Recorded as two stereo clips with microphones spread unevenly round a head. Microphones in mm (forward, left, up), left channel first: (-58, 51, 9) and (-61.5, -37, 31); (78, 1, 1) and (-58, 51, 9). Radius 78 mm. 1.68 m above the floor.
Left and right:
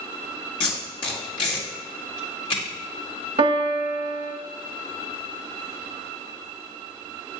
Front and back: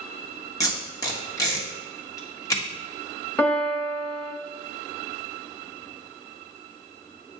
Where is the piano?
100° right, 0.9 m.